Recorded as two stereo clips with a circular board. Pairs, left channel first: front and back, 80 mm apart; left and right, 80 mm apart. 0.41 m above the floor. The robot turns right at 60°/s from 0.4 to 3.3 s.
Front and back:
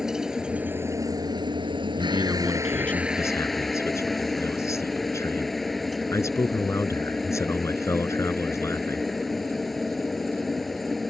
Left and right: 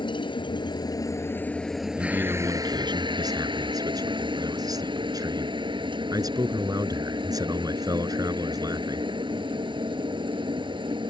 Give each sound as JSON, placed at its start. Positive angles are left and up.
{"t": 0.0, "sound": "a helicopter", "azimuth_deg": 100}
{"t": 2.0, "sound": "a man speaking", "azimuth_deg": -130}